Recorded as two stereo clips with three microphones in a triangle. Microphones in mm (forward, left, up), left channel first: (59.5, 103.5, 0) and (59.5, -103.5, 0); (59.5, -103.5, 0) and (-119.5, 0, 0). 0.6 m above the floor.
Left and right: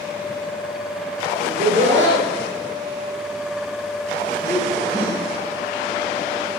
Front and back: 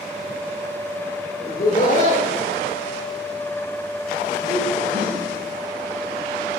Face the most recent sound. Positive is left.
turn(degrees=160)